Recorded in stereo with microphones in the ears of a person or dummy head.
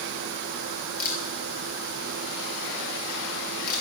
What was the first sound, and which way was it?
A camera shutter, 50° left (ahead or behind).